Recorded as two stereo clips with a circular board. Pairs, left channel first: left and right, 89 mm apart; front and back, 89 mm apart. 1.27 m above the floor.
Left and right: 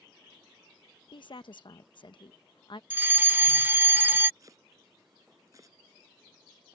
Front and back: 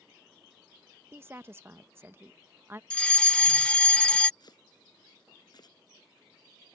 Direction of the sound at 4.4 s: 40° right.